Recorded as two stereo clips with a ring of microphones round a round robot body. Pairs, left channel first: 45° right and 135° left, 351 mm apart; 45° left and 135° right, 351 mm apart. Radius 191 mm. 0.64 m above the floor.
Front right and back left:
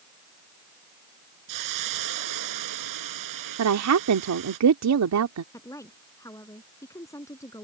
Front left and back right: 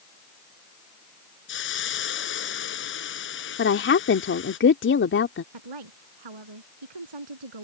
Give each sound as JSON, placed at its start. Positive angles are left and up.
{"t": 1.5, "sound": "a hiss", "azimuth_deg": 100}
{"t": 3.6, "sound": "a woman speaking", "azimuth_deg": 100}
{"t": 5.5, "sound": "a woman speaking", "azimuth_deg": -125}